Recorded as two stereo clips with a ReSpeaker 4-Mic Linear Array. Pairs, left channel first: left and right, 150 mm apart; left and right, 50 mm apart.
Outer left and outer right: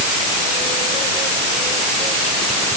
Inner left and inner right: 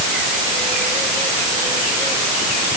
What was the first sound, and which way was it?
Only background noise.